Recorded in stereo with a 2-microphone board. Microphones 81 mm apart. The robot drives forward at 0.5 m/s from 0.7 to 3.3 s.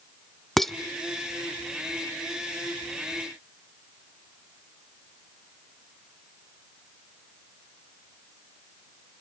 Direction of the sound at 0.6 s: 5° left (ahead or behind).